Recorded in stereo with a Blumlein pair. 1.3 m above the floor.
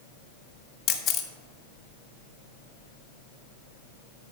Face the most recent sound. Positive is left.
turn(degrees=30)